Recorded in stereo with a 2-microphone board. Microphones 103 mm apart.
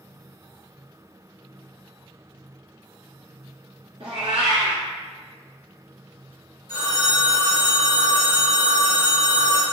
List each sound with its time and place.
4.0 s a cat meowing: 65° right (ahead or behind), 0.8 m
6.7 s a phone ringing: 40° left (ahead or behind), 2.0 m